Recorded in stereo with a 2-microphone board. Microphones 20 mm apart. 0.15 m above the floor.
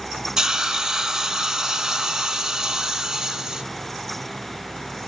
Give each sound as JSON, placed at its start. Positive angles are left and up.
{"t": 0.4, "sound": "a hiss", "side_deg": -30, "distance_m": 0.7}